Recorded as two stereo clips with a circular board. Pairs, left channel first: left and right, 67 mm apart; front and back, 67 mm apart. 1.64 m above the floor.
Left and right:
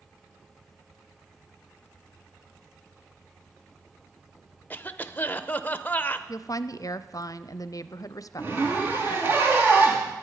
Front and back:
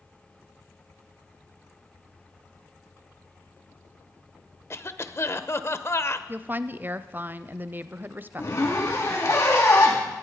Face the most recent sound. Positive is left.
turn(degrees=-35)